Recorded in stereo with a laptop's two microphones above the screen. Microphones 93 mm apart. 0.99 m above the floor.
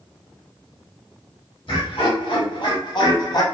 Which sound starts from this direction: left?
Laughter, at 1.7 s.